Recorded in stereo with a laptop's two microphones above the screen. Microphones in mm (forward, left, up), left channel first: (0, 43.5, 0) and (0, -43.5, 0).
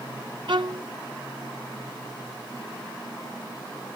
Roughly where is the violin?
Right.